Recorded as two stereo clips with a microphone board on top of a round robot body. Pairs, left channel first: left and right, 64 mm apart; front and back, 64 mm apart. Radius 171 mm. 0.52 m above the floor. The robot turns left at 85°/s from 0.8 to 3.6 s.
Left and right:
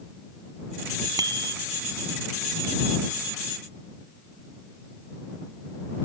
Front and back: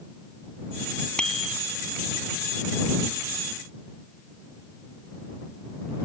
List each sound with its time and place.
1.2 s a bicycle bell: 75° right; by 1.6 s 105° right